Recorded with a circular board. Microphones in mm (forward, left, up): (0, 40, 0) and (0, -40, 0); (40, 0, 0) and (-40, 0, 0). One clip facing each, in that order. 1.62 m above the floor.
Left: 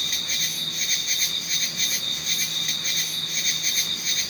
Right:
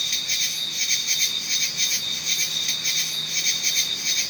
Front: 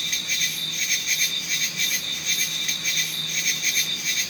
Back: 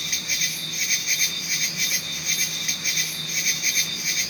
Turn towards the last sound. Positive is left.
turn(degrees=100)